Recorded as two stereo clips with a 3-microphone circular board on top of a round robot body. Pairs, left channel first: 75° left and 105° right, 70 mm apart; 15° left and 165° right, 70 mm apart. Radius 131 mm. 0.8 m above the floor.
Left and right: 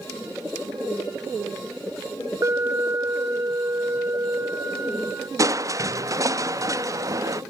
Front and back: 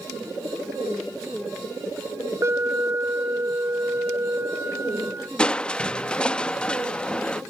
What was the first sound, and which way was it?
An alarm, 130° right.